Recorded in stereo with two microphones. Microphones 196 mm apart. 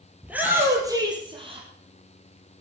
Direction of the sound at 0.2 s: 5° right (ahead or behind).